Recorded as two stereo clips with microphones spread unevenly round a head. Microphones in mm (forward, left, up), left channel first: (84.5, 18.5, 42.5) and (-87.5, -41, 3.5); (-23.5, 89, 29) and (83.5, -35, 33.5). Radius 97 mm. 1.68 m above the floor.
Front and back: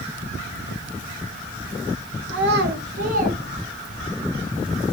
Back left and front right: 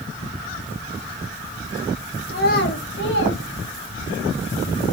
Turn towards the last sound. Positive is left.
turn(degrees=130)